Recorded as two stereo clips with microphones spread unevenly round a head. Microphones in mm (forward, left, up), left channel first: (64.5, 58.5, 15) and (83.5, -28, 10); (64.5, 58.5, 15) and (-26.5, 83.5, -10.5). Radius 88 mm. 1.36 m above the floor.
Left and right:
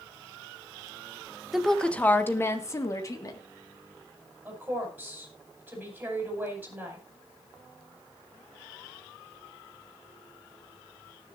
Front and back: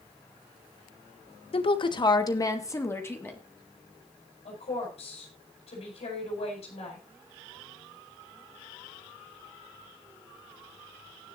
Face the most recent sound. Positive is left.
turn(degrees=-5)